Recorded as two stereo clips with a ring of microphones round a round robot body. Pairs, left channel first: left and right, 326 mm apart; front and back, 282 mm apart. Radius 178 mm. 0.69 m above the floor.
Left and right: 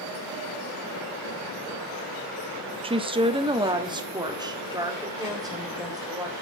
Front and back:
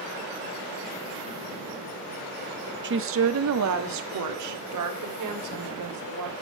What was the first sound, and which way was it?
A woman speaking, 155° right.